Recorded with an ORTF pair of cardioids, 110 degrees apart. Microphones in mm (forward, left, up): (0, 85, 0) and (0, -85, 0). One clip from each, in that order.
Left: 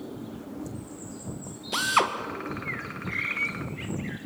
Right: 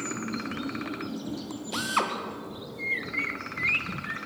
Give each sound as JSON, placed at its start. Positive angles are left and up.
{"t": 1.7, "sound": "a drill", "azimuth_deg": 20, "distance_m": 1.7}